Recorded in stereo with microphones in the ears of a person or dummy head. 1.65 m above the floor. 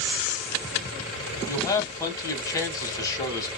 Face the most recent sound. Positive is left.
turn(degrees=20)  # may be behind; listen again after turning